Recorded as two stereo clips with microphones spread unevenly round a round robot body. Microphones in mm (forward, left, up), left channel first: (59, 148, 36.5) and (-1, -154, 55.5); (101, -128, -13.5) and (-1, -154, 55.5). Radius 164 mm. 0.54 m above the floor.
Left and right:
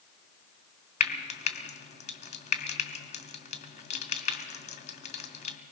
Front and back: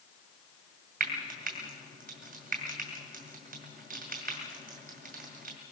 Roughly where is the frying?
Behind left.